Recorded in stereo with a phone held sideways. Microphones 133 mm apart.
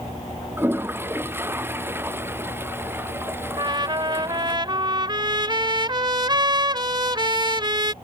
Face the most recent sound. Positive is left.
turn(degrees=-35)  # may be behind; listen again after turning